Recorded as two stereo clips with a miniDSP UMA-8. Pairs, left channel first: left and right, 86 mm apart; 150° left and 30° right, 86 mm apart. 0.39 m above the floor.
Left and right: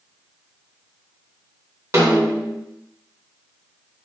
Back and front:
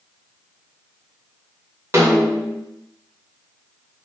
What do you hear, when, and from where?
1.9 s a snare drum: 70° right, 0.6 m